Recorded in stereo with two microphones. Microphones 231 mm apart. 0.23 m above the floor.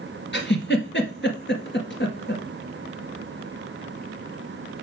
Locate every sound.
0.3 s a giggle: 55° left (ahead or behind), 1.9 m